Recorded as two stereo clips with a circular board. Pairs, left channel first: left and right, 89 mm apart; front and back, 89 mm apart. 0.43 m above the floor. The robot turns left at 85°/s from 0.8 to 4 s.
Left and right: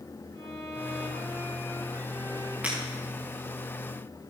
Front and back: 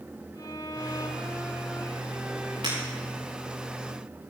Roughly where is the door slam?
No door slam in this recording.